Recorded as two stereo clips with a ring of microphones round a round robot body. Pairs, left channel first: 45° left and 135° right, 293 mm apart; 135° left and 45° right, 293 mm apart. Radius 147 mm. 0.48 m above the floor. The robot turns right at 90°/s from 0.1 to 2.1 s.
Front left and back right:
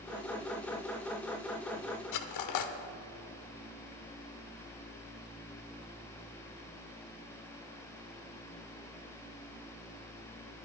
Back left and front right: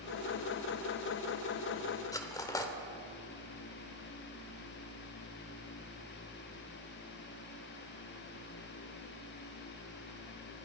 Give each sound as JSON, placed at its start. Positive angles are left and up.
{"t": 2.1, "sound": "cutlery clinking", "azimuth_deg": 55, "distance_m": 0.8}